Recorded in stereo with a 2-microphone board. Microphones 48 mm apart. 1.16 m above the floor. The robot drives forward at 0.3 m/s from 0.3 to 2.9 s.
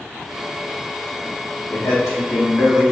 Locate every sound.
1.7 s a man speaking: 80° left, 1.6 m; by 2.9 s 70° left (ahead or behind), 1.7 m